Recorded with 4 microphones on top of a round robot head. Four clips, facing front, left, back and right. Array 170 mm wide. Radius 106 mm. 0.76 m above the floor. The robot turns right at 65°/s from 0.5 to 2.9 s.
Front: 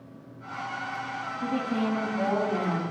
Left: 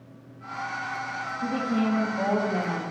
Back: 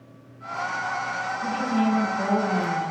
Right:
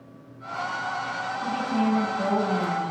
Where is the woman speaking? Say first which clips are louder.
Even, back 4 dB; 40° left, 5 m; by 2.8 s 130° left, 5 m.